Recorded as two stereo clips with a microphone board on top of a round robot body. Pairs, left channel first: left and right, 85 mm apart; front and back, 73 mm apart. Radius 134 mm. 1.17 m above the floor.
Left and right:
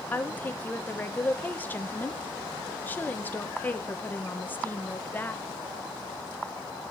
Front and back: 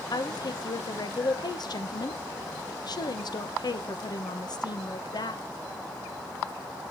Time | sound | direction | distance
0.1 | a woman speaking | 20° left | 1.2 m